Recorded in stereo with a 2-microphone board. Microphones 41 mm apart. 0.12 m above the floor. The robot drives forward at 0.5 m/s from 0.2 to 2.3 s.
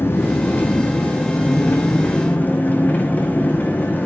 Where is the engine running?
70° left (ahead or behind), 1.7 m; by 4.1 s 45° left (ahead or behind), 2.5 m.